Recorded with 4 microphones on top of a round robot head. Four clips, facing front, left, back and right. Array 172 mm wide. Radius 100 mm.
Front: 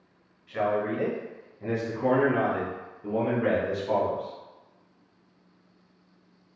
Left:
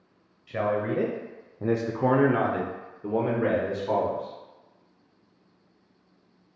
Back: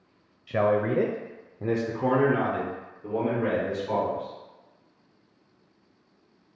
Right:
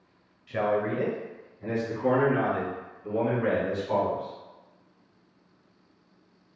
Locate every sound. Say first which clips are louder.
0.5 s a man speaking: even, back 3 dB; 175° left, 0.7 m; by 4.3 s 70° left, 1.7 m